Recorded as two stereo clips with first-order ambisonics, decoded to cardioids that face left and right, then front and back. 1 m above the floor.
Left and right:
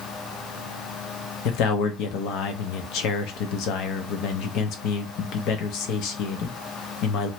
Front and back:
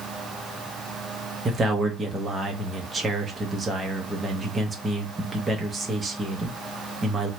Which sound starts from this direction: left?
A man speaking, at 1.4 s.